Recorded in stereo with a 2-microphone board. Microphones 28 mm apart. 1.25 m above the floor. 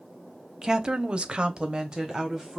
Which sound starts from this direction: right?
A woman speaking, at 0.6 s.